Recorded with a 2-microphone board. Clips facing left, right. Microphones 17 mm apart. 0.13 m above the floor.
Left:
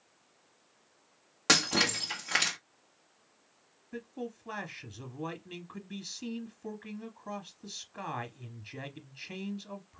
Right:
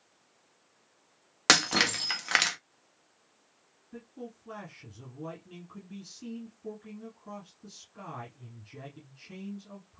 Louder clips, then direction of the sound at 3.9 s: Left 4 dB; 30° left (ahead or behind).